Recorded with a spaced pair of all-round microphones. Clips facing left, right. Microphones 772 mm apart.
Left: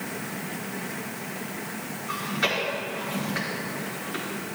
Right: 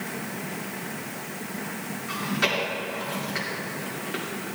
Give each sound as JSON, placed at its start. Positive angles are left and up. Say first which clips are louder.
{"t": 2.1, "sound": "chewing", "louder": "right 2 dB", "side_deg": -85, "distance_m": 3.5}